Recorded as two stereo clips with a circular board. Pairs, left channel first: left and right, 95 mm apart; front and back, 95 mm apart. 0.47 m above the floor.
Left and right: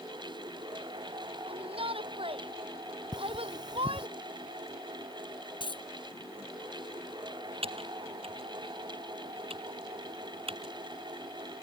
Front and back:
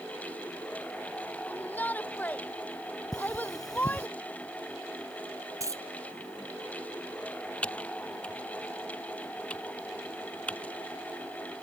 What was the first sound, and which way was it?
A shout, 75° right.